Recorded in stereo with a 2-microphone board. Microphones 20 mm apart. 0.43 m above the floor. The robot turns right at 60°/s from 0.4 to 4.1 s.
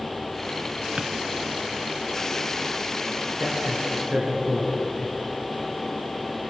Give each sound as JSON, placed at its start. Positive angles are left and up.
{"t": 1.0, "sound": "a drawer", "side_deg": -85, "distance_m": 1.1}
{"t": 3.4, "sound": "a man speaking", "side_deg": -60, "distance_m": 6.0}